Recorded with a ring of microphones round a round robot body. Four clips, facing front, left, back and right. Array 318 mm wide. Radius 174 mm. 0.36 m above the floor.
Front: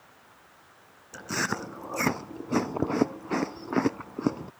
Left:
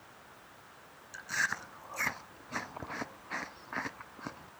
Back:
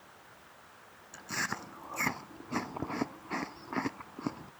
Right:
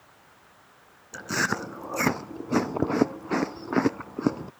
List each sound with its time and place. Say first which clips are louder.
1.1 s chewing: right 8 dB, front 7 dB; 60° right